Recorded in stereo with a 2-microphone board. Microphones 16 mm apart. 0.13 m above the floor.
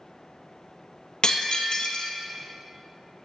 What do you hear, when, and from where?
1.2 s breaking glass: 65° left (ahead or behind), 1.6 m